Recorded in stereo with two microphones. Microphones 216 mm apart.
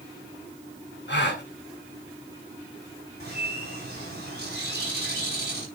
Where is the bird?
50° right (ahead or behind), 4 m.